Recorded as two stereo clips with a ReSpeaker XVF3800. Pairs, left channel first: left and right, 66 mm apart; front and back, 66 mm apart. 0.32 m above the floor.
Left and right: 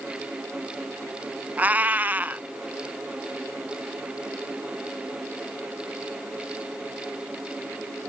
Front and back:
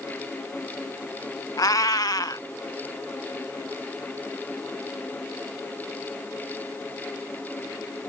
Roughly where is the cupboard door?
No cupboard door in this recording.